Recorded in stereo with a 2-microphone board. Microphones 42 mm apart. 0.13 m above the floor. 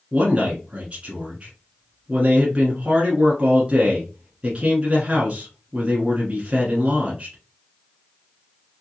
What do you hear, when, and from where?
0.1 s a man speaking: 25° right (ahead or behind), 1.3 m